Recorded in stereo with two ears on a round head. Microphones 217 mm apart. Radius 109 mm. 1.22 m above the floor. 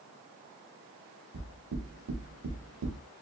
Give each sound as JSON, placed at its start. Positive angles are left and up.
{"t": 1.3, "sound": "knocking", "side_deg": -70, "distance_m": 1.1}